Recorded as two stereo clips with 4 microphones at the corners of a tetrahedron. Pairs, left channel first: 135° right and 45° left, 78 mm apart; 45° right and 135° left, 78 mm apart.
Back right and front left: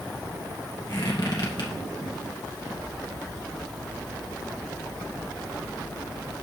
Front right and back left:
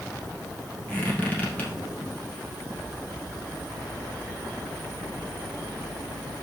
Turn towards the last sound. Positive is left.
turn(degrees=-115)